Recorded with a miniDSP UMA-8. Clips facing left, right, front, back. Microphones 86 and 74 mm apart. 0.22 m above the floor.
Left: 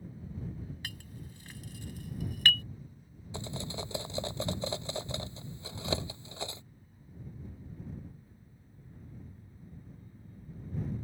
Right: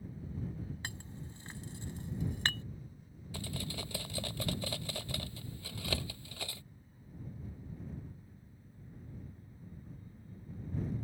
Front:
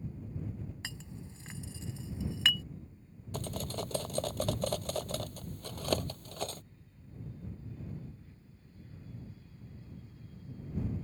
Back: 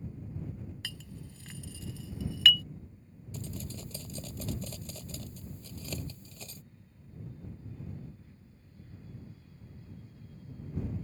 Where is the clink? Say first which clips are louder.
Right 1 dB, even; 50° right.